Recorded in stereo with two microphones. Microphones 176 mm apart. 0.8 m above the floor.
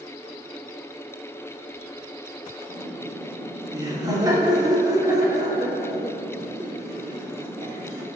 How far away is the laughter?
About 2 m.